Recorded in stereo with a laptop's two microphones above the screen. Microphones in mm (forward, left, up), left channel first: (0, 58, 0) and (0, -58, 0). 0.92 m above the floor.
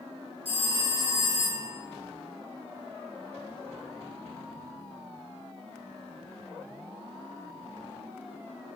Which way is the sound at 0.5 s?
55° right (ahead or behind).